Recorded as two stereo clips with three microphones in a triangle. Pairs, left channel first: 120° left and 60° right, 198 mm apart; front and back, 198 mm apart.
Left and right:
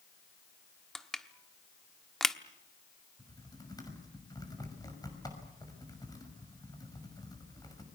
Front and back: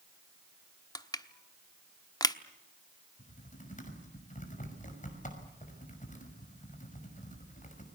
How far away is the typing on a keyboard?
About 5.5 m.